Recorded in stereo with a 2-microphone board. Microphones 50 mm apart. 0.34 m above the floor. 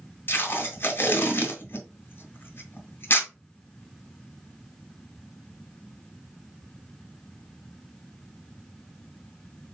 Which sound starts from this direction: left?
Tape being pulled, at 0.3 s.